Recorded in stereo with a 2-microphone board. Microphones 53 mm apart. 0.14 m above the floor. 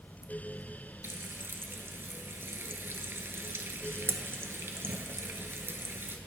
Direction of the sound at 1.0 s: 50° right (ahead or behind).